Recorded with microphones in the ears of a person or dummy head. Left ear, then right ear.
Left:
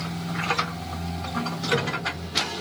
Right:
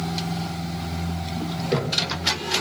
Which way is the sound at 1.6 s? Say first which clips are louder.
Right 3 dB; 20° right (ahead or behind).